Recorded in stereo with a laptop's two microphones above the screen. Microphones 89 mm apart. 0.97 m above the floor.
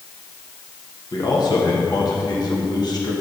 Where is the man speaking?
50° left (ahead or behind), 1.2 m.